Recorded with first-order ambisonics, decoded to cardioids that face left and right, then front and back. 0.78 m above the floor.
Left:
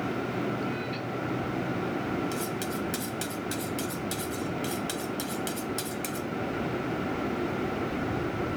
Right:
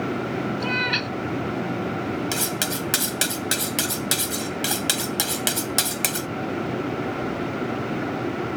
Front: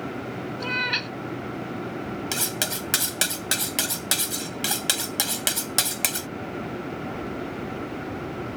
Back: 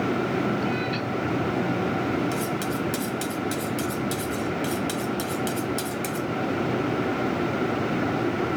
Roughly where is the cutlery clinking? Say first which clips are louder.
Right 6 dB, even; ahead right.